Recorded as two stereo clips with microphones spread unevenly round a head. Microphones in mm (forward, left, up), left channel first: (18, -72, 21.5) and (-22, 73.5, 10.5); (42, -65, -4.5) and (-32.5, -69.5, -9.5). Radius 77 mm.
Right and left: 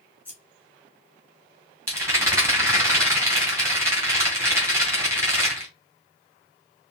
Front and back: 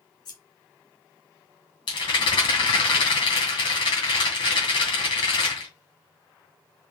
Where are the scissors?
25° left, 1.3 m.